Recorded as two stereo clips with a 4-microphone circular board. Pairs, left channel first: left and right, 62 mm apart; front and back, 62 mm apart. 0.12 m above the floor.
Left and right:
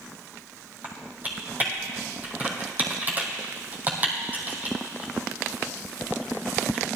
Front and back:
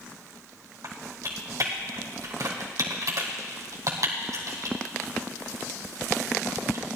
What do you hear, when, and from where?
0.8 s typing on a keyboard: 150° right, 2 m